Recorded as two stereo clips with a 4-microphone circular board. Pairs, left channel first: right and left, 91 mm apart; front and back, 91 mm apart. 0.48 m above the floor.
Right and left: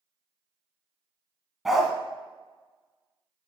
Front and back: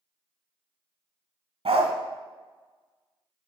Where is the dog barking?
Straight behind, 1.0 m.